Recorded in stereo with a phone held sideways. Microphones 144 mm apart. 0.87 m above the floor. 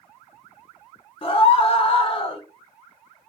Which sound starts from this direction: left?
A scream, at 1.2 s.